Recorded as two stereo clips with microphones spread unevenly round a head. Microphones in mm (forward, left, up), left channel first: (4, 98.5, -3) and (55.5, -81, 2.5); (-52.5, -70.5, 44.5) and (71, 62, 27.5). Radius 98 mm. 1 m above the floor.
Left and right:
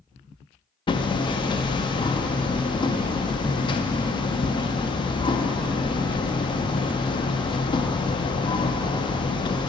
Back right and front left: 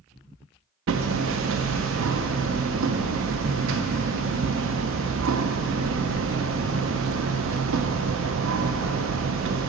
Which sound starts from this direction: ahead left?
Hammering, at 0.9 s.